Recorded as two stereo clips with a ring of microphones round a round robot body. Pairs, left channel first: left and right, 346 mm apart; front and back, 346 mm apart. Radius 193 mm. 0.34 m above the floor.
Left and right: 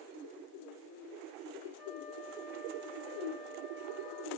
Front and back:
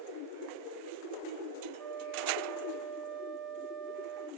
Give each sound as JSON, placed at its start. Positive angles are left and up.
{"t": 1.8, "sound": "a flute", "azimuth_deg": 130, "distance_m": 4.5}